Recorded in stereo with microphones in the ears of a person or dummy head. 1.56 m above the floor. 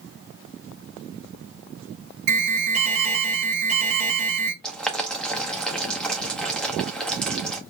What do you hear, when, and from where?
2.3 s an alarm: 65° right (ahead or behind), 1.2 m
4.6 s boiling: centre (ahead or behind), 0.5 m